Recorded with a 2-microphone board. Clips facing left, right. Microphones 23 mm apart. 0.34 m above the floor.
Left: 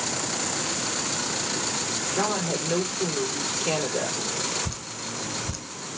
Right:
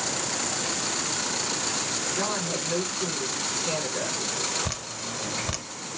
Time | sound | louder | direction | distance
2.1 | a woman speaking | left 5 dB | 50° left (ahead or behind) | 7 m
4.7 | dripping | right 1 dB | 55° right (ahead or behind) | 1.3 m